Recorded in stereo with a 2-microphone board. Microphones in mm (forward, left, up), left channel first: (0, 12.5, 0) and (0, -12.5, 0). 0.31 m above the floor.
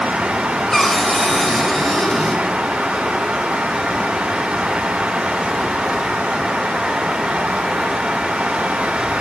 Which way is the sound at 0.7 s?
5° right (ahead or behind).